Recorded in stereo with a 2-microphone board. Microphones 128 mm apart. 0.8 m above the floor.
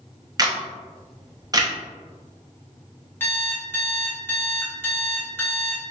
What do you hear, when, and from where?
0.4 s a camera shutter: 30° right (ahead or behind), 0.7 m
3.2 s an alarm clock: 20° left (ahead or behind), 1.2 m